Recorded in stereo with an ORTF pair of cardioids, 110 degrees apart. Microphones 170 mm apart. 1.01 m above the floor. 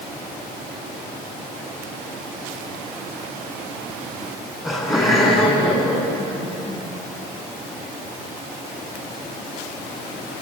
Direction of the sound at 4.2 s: 15° left.